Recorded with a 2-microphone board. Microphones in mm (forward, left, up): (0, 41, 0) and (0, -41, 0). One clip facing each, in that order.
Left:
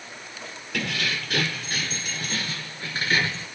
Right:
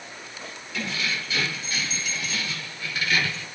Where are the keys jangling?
65° left (ahead or behind), 2.5 m; by 3.5 s 30° left (ahead or behind), 2 m.